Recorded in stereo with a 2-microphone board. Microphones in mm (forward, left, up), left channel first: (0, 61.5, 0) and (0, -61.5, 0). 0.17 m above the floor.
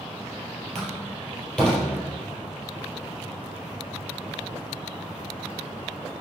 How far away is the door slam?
About 4 m.